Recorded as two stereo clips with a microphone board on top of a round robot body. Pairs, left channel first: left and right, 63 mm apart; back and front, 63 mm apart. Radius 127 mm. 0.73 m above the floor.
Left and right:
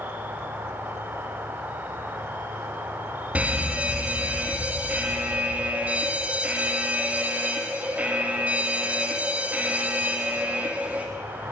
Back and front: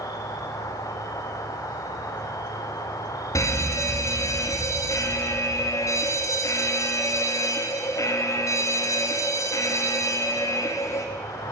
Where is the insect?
150° right, 2.5 m.